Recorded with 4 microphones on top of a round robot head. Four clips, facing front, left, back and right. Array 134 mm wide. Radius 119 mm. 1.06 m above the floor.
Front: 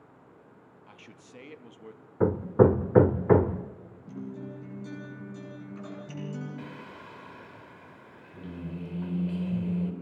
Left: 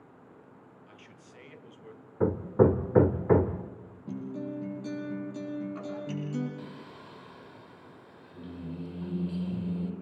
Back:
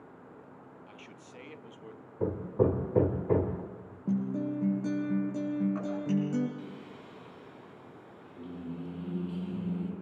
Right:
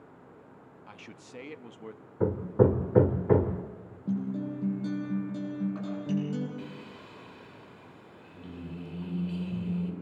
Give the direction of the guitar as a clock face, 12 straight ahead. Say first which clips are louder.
Right 4 dB, back 8 dB; 5 o'clock.